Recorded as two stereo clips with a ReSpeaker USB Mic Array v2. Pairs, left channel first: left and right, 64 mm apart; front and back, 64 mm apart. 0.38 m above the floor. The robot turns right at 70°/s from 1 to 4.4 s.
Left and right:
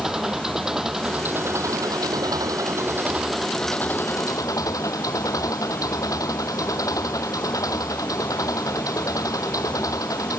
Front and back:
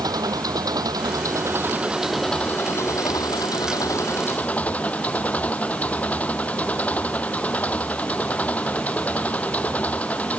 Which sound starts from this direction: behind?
An engine running, at 0.0 s.